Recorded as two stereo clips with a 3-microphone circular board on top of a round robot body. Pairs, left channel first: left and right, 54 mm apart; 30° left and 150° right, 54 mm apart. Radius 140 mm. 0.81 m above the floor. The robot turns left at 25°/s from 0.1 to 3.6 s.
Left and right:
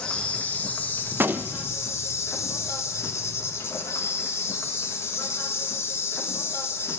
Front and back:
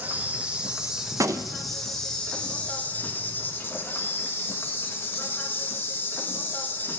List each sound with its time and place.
0.0 s an insect: 155° left, 1.3 m; by 7.0 s 70° left, 1.3 m
1.1 s a gunshot: 140° right, 0.6 m; by 1.8 s 155° right, 0.6 m